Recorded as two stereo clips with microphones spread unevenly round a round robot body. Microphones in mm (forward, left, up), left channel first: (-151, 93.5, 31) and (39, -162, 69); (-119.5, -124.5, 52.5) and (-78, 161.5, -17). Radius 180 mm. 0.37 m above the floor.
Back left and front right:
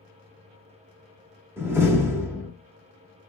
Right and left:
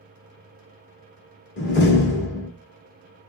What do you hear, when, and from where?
1.6 s a door slam: 140° right, 1.0 m